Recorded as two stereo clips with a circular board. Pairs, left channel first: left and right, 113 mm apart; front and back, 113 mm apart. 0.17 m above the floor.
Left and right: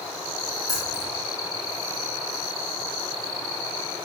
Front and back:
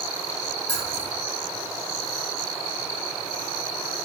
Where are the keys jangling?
30° left, 4.5 m.